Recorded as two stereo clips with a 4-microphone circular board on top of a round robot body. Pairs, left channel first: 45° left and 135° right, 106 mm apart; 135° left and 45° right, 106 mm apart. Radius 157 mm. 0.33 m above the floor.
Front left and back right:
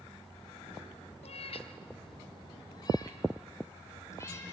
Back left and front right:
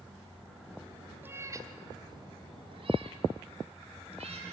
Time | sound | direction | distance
1.2 | a cat meowing | 25° left | 1.3 m